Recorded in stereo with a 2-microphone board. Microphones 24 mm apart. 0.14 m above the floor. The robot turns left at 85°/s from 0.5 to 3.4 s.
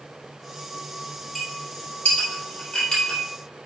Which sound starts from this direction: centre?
A clink, at 1.4 s.